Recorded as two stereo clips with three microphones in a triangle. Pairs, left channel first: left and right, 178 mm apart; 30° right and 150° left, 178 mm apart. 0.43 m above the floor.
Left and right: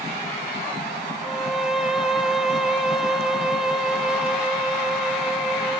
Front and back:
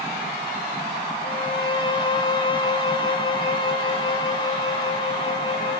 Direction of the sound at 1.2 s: 5° right.